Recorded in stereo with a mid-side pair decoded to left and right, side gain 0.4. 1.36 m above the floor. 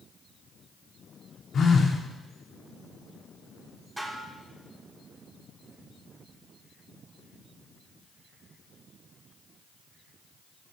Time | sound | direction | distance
1.5 | a phone buzzing | 60° left | 3 m
4.0 | dishes clattering | 15° right | 3 m